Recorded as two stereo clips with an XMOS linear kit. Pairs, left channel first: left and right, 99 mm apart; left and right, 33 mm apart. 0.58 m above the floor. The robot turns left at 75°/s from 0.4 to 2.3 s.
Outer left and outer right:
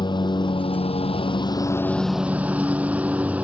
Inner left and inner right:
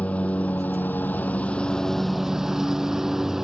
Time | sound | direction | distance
0.0 | a lawn mower | 130° left | ?